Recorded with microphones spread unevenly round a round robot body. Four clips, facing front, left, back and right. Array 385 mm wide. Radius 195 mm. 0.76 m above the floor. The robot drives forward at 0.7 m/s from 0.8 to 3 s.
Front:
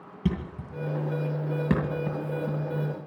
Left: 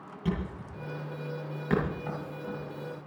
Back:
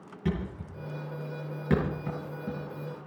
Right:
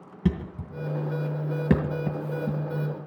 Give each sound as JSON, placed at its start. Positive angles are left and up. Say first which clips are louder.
{"t": 0.2, "sound": "a thud", "louder": "right 5 dB, front 2 dB", "azimuth_deg": -60, "distance_m": 2.5}